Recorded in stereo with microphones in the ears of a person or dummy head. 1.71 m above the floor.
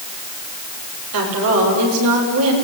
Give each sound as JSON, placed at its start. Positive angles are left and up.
{"t": 1.1, "sound": "a woman speaking", "side_deg": -85, "distance_m": 7.0}